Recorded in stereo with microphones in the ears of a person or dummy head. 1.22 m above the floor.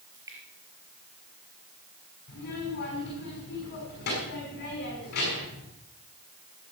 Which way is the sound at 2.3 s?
55° left (ahead or behind).